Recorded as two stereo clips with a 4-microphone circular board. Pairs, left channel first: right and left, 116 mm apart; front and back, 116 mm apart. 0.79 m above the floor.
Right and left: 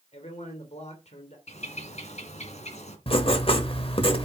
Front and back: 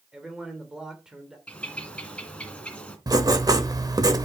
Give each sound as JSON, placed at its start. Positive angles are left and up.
{"t": 0.1, "sound": "a man speaking", "azimuth_deg": -95, "distance_m": 2.5}
{"t": 1.5, "sound": "a bird", "azimuth_deg": -80, "distance_m": 2.5}
{"t": 3.1, "sound": "writing", "azimuth_deg": -125, "distance_m": 1.3}